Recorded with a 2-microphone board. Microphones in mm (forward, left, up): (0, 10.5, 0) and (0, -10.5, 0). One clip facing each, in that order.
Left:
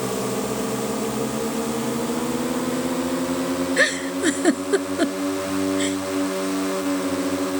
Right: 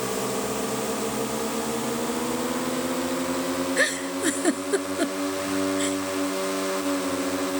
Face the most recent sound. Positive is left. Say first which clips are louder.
# left 5 dB
turn(degrees=20)  # may be behind; listen again after turning